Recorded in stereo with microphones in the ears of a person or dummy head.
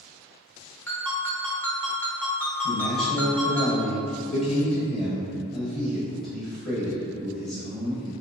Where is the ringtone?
10° left (ahead or behind), 0.7 m.